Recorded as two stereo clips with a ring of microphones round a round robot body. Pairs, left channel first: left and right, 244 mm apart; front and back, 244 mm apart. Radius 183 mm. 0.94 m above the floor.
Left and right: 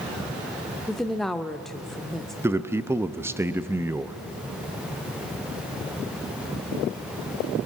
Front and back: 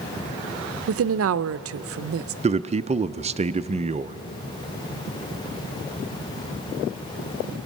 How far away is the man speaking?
About 0.5 m.